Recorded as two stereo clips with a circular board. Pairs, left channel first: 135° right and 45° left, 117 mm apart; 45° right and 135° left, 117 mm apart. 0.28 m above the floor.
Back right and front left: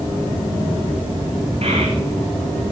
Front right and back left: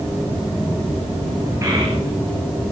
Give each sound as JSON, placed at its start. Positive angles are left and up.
{"t": 1.6, "sound": "a child speaking", "azimuth_deg": 70, "distance_m": 2.5}